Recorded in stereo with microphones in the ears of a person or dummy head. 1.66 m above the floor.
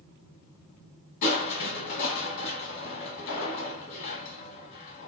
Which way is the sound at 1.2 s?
50° left (ahead or behind).